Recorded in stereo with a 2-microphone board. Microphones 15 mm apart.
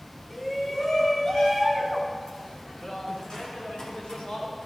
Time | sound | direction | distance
0.3 | a shout | 15° left (ahead or behind) | 3.5 m